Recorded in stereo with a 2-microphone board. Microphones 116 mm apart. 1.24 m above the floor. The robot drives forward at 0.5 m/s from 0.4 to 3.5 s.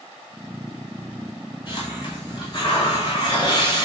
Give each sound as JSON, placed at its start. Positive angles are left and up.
{"t": 1.7, "sound": "a hiss", "side_deg": 40, "distance_m": 6.0}